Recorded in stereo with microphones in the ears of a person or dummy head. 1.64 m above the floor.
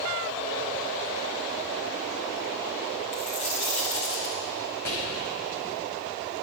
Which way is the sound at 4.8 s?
70° left (ahead or behind).